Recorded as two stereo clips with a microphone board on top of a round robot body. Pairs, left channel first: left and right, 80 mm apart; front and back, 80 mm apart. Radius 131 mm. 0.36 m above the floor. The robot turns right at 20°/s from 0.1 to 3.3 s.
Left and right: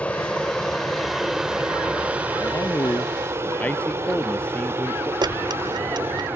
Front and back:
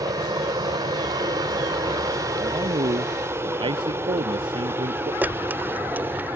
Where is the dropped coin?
115° right.